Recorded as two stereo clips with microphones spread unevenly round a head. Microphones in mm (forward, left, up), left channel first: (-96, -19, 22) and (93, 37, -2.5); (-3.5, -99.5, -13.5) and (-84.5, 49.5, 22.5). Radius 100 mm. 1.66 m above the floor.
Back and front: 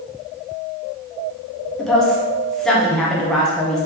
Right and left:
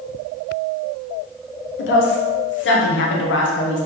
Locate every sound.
1.8 s a woman speaking: 75° right, 1.7 m